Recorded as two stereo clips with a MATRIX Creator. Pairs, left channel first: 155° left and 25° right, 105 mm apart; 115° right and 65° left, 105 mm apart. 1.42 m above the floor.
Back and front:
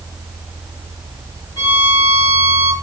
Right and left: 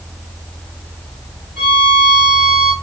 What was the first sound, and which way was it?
A violin, 120° left.